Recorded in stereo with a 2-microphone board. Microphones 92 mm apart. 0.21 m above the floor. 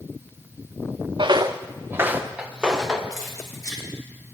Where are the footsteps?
60° right (ahead or behind), 0.8 m; by 3.0 s 5° right (ahead or behind), 2.0 m.